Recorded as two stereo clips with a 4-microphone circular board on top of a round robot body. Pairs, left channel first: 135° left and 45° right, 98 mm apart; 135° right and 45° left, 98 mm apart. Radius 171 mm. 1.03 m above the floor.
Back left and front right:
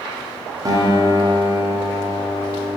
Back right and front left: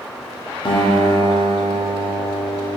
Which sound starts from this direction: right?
A guitar, at 0.7 s.